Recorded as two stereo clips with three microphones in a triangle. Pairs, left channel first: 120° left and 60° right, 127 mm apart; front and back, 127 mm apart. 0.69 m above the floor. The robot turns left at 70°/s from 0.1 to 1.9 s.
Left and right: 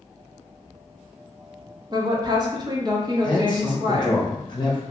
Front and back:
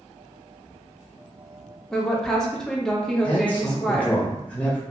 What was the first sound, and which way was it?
A woman speaking, 85° right.